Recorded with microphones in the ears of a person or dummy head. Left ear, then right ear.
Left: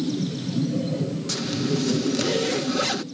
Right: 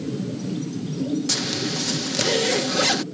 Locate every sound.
1.3 s a zipper: 20° right (ahead or behind)